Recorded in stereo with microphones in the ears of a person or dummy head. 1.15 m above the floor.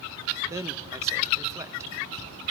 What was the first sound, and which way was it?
A man speaking, 25° right (ahead or behind).